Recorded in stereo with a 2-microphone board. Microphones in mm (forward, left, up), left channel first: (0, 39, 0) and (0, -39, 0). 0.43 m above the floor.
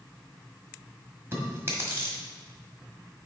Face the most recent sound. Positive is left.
turn(degrees=-30)  # may be behind; listen again after turning